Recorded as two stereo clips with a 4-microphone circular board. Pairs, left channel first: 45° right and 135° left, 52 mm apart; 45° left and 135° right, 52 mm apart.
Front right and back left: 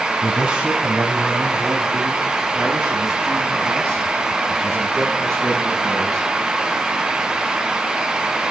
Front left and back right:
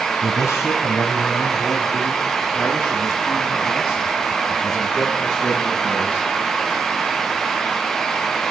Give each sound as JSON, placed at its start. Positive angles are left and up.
{"t": 0.2, "sound": "a man speaking", "azimuth_deg": 60, "distance_m": 3.0}